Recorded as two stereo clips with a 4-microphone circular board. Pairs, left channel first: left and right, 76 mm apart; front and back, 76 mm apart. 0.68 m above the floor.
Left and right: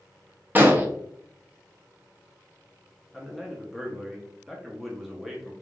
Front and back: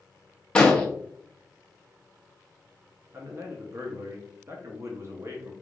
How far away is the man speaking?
About 0.9 m.